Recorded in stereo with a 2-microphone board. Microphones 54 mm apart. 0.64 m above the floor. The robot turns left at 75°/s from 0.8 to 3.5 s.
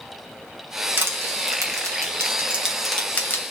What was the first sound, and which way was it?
Crushing, 40° right (ahead or behind).